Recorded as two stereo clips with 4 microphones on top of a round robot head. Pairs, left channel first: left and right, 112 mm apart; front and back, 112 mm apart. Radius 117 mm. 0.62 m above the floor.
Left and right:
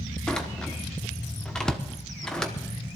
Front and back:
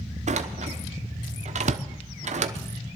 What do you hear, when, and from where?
0.3 s a door slam: 175° left, 1.0 m